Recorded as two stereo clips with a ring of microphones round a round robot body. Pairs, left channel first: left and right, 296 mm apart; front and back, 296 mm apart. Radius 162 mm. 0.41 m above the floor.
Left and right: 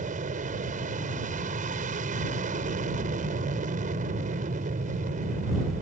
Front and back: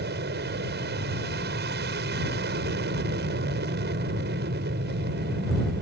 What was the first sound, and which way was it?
An aircraft, 145° right.